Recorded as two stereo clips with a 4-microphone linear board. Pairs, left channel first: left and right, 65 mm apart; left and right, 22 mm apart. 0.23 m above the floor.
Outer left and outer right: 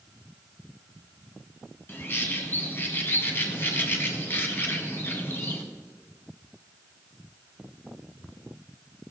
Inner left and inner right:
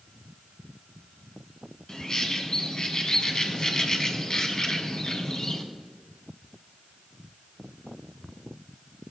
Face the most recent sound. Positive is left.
turn(degrees=35)  # may be behind; listen again after turning